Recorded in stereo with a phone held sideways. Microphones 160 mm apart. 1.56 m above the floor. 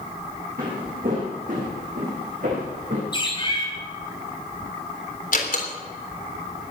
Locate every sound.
0.6 s footsteps: 60° right (ahead or behind), 5.5 m; by 3.0 s 55° right (ahead or behind), 7.5 m
3.1 s a bird: 30° left (ahead or behind), 4 m
5.3 s a door slam: 60° left (ahead or behind), 3.5 m